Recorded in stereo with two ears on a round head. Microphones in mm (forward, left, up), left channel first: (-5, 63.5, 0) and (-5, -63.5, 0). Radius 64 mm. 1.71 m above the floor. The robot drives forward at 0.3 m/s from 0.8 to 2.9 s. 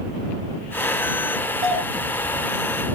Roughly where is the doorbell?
Right.